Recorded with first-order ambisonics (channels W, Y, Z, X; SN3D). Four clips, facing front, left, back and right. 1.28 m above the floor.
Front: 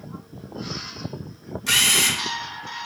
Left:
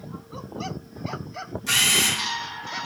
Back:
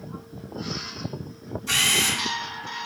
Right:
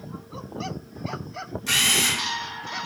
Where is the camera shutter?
10° right, 2.0 m.